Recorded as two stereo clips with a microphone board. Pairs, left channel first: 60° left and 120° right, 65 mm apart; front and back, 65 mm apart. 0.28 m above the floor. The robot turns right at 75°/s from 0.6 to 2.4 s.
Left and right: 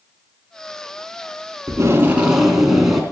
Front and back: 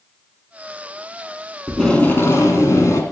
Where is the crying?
I don't hear crying.